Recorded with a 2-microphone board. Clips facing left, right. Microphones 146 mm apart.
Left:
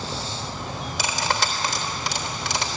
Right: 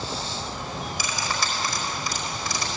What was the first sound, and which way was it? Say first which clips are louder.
Cutlery clinking: left 6 dB; 80° left.